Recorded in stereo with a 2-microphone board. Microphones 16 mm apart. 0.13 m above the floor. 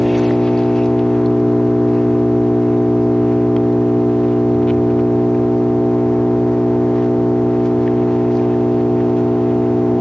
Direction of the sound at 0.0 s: 80° left.